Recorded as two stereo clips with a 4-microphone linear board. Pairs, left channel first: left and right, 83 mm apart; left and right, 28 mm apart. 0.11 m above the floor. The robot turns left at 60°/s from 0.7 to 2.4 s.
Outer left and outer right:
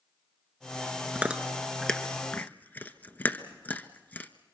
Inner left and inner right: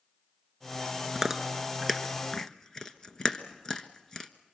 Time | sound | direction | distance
1.1 | chewing | 20° right (ahead or behind) | 1.3 m